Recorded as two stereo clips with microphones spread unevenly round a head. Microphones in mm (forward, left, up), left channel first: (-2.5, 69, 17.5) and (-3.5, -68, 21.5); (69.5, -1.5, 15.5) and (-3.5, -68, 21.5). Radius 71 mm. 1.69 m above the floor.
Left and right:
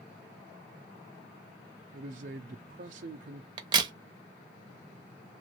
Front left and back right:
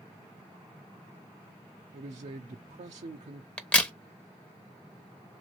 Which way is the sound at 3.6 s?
35° right.